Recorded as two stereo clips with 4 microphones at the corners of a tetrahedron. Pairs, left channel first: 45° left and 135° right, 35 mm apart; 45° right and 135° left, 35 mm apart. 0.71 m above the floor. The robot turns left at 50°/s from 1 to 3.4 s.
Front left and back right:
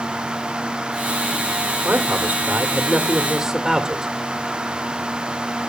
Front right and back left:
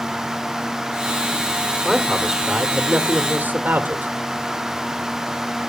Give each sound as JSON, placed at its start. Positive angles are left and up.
{"t": 1.8, "sound": "a man speaking", "azimuth_deg": -135, "distance_m": 1.5}